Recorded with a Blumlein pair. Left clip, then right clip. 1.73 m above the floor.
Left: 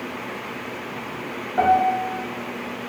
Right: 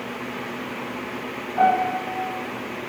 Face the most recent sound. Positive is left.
turn(degrees=70)